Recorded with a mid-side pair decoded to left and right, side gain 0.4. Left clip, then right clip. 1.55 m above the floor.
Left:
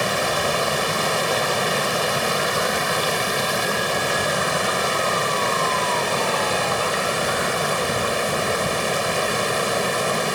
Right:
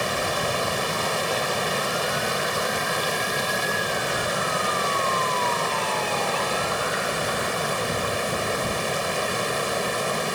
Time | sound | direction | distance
0.0 | running water | 30° left | ?